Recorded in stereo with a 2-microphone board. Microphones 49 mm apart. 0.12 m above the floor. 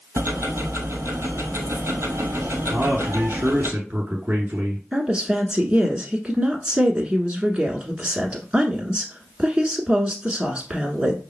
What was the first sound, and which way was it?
Ticking, 70° right (ahead or behind).